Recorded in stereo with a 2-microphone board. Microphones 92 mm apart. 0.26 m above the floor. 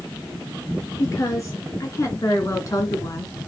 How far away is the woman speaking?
About 4 m.